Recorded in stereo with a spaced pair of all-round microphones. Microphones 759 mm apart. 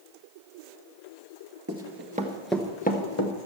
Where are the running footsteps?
20° right (ahead or behind), 1.3 m; by 3.3 s 25° left (ahead or behind), 1.3 m.